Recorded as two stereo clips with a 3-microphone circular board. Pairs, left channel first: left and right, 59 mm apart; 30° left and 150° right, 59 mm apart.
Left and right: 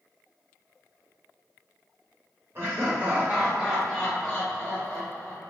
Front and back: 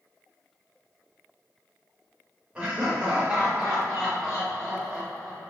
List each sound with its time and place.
2.5 s laughter: 85° right, 1.2 m; by 5.5 s 100° left, 1.5 m